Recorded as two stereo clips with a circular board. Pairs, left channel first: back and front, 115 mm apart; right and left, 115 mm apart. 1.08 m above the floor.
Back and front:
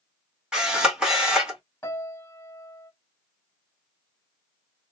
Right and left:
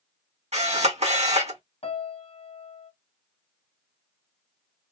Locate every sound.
0.5 s a camera shutter: 85° left, 1.5 m
1.8 s a piano: 115° right, 1.1 m